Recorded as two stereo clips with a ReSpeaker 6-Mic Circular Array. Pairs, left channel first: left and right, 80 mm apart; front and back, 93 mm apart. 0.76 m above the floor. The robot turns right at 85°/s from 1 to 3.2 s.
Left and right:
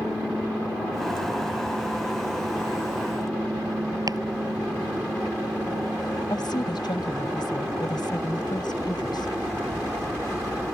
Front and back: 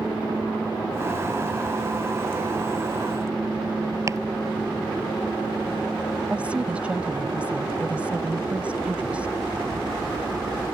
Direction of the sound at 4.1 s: 125° right.